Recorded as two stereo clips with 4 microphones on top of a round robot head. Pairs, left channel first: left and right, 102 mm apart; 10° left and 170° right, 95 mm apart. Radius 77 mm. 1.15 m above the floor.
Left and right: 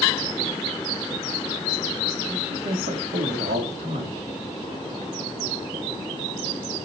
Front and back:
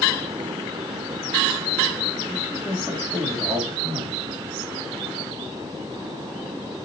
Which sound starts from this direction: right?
A man speaking, at 2.3 s.